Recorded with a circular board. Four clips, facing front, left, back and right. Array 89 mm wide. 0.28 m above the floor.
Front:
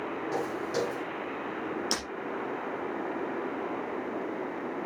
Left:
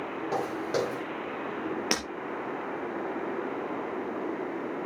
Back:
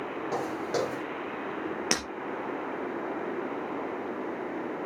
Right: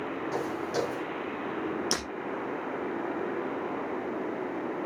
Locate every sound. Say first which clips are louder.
0.3 s footsteps: left 3 dB, back 2 dB; 125° left, 7 m
1.9 s breaking glass: left 2 dB, back 3 dB; 135° left, 4 m